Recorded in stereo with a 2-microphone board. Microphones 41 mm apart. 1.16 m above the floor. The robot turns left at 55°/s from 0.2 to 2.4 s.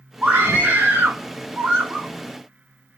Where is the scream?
45° right, 2 m; by 2.1 s 145° right, 2 m.